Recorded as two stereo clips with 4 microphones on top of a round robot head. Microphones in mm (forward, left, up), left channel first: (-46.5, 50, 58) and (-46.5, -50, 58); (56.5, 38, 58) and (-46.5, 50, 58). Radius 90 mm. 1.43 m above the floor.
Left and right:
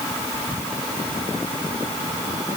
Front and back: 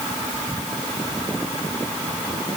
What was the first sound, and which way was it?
Only background noise.